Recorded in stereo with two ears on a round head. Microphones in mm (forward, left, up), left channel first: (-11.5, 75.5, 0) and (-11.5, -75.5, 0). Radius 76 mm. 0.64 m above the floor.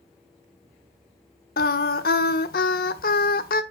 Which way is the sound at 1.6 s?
60° left (ahead or behind).